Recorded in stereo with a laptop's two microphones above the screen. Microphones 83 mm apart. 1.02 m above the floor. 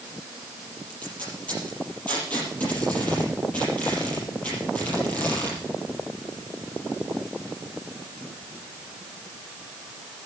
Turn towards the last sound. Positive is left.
turn(degrees=15)  # may be behind; listen again after turning